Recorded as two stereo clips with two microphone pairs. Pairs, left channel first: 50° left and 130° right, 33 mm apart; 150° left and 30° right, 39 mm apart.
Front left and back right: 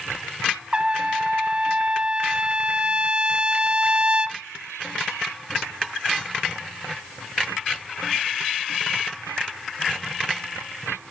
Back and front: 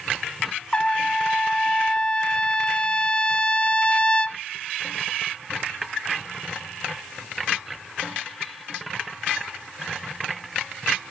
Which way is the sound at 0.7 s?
160° right.